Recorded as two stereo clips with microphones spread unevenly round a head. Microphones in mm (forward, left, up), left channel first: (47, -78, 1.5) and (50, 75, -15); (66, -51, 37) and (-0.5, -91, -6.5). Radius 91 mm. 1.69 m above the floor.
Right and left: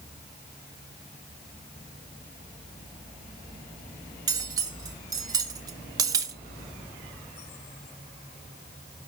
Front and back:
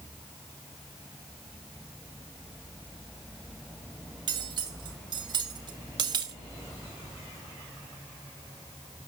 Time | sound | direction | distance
4.3 | cutlery clinking | 150° left | 0.9 m